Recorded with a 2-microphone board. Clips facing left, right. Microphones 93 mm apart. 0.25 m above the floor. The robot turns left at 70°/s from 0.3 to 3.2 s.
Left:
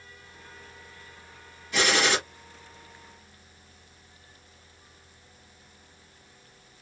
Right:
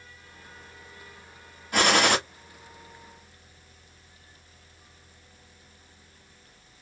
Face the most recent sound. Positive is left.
turn(degrees=-170)